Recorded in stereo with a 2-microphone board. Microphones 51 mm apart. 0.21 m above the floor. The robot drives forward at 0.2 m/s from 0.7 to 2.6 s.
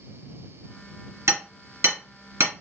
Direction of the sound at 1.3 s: 65° right (ahead or behind).